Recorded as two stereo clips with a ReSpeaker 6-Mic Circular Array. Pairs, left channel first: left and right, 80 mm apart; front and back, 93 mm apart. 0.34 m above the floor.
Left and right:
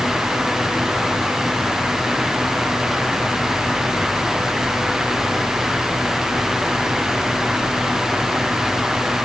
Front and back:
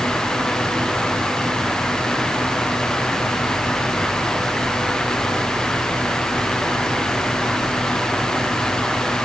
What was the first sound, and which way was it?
Only background noise.